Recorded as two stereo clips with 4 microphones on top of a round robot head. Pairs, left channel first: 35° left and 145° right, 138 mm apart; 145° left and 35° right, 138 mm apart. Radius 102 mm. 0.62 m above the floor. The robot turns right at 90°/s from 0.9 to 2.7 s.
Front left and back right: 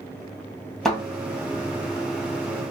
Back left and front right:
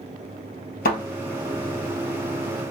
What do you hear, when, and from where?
0.8 s a thud: 125° left, 1.5 m; by 1.0 s 130° left, 1.5 m